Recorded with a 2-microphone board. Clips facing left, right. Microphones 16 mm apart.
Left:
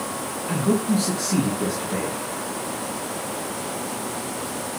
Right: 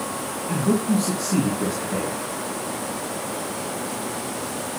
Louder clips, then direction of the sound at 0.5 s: Even; 55° left (ahead or behind).